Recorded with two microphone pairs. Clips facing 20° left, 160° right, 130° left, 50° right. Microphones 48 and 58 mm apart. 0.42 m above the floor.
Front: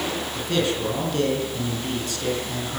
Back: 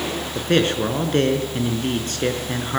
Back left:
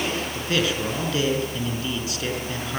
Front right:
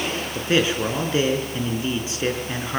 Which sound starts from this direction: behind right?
A man speaking, at 0.3 s.